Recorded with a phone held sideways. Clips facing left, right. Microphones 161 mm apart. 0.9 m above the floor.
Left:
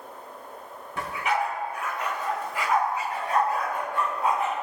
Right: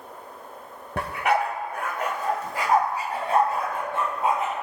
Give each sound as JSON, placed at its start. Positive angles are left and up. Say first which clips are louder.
{"t": 1.0, "sound": "a dog barking", "louder": "right 4 dB", "side_deg": -65, "distance_m": 1.1}